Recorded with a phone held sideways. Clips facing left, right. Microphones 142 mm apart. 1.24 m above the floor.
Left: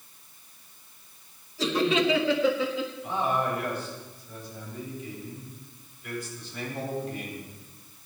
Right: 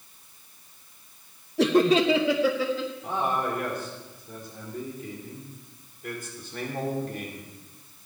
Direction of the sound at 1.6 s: 65° right (ahead or behind).